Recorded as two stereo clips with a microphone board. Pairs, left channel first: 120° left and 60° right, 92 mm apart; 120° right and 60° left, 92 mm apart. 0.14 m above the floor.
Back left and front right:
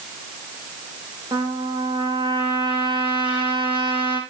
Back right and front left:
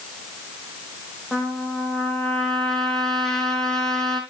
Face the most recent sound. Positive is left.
turn(degrees=-35)